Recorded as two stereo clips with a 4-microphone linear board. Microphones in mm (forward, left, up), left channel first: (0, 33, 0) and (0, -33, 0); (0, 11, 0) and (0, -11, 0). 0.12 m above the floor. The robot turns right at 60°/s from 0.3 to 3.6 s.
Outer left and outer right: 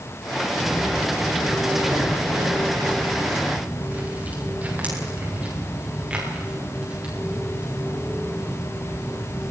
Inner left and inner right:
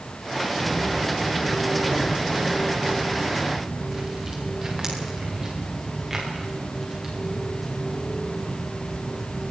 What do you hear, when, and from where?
0.6 s footsteps: 50° left (ahead or behind), 3.5 m; by 9.4 s 15° right (ahead or behind), 17 m